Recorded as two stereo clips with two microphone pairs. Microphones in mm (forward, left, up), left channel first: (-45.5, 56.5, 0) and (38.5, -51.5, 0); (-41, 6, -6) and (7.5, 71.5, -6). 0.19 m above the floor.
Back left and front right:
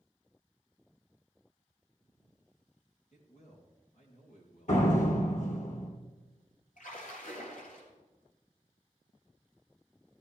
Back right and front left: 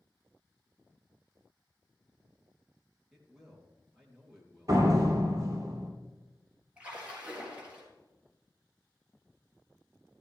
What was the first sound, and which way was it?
A man speaking, 140° left.